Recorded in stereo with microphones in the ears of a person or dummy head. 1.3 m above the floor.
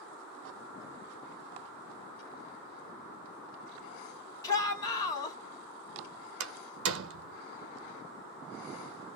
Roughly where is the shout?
Left.